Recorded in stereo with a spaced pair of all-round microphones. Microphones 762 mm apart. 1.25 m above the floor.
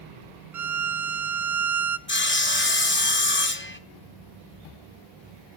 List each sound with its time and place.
0.5 s a violin: 25° right (ahead or behind), 0.6 m
2.1 s sawing: 15° left (ahead or behind), 0.7 m